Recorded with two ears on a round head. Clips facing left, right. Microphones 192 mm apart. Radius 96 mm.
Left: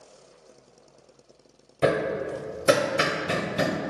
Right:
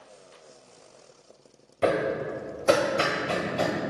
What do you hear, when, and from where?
1.8 s hammering: 20° left (ahead or behind), 0.5 m